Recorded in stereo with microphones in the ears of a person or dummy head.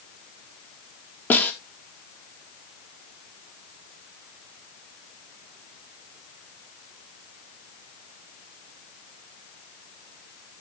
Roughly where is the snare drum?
Centre.